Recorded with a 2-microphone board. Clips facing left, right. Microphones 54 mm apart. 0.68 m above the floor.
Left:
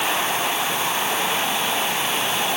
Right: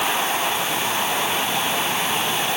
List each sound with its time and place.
Only background noise.